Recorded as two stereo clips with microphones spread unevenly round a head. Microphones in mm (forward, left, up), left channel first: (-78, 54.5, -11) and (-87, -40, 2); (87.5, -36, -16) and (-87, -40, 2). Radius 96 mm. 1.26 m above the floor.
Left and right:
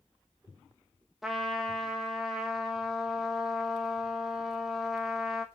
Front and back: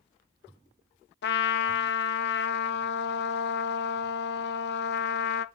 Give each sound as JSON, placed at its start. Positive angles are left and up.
{"t": 1.2, "sound": "a trumpet", "azimuth_deg": -10, "distance_m": 0.6}